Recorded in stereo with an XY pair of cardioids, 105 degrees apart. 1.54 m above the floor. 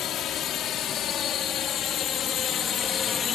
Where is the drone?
65° left; by 3.4 s 45° left.